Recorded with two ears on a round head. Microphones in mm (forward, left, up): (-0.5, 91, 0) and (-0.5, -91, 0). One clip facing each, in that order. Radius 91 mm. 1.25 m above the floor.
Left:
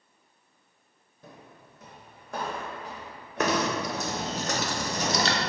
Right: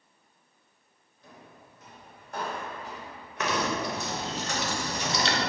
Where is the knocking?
35° left (ahead or behind), 0.6 m.